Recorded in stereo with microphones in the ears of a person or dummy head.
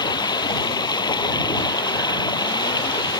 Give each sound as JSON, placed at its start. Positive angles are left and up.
{"t": 0.0, "sound": "running water", "side_deg": 25}